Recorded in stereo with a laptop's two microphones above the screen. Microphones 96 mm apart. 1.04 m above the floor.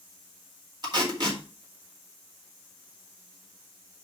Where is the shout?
I don't hear a shout.